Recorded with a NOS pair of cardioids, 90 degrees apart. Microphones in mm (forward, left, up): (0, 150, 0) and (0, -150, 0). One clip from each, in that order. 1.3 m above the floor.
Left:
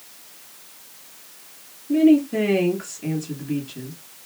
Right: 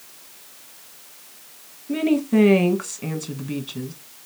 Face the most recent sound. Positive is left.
turn(degrees=-65)